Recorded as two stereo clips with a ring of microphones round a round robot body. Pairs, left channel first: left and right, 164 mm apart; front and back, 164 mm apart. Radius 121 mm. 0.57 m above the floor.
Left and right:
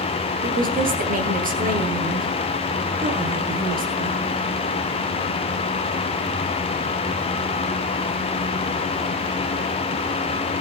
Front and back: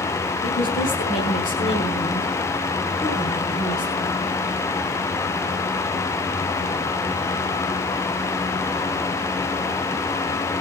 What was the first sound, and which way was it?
A woman speaking, 55° right.